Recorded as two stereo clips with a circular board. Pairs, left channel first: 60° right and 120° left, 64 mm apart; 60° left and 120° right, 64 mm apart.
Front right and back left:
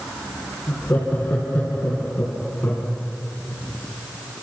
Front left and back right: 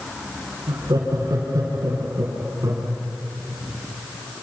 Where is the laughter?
125° right, 5 m; by 2.9 s 110° right, 3.5 m.